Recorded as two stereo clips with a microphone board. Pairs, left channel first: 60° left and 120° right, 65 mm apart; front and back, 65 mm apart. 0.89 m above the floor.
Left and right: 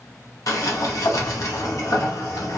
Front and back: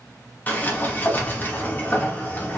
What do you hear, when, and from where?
0.5 s a sliding door: 55° left, 0.7 m